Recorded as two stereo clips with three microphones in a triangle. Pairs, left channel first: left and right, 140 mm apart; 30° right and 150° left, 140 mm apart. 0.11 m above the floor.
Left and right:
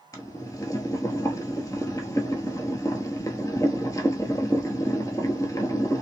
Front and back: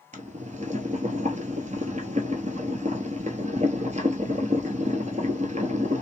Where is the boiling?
150° left, 0.9 m.